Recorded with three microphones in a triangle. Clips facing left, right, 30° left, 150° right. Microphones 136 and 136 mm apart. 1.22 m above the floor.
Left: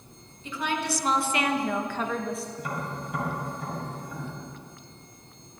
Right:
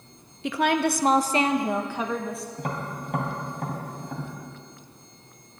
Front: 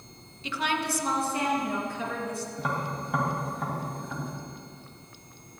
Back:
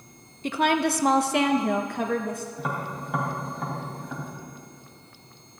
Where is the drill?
No drill in this recording.